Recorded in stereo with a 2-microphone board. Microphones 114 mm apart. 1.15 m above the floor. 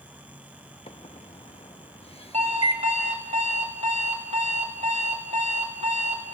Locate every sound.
0.9 s a microwave: 60° left (ahead or behind), 1.4 m
2.3 s an alarm clock: 85° right, 3.5 m